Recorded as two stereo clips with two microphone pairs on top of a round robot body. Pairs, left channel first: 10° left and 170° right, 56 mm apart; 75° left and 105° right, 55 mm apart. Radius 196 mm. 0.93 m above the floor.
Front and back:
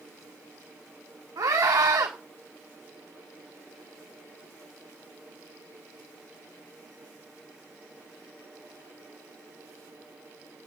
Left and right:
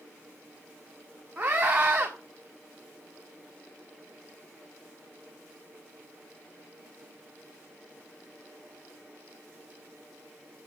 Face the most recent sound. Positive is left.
turn(degrees=-170)